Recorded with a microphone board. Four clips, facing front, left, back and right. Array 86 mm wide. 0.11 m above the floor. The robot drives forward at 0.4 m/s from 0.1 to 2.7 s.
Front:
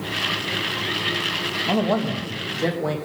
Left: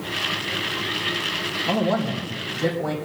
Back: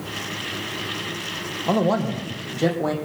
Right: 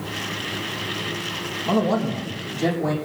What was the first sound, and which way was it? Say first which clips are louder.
A man speaking: right 2 dB, back 1 dB; 175° right.